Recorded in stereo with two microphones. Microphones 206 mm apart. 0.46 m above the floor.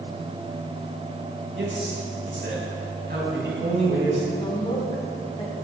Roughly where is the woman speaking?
Left.